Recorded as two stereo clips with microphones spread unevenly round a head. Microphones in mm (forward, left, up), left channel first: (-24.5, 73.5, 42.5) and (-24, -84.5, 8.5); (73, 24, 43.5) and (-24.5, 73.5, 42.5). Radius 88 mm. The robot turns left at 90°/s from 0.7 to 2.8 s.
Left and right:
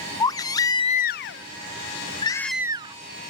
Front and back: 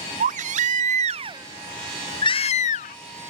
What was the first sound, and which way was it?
A baby crying, 160° left.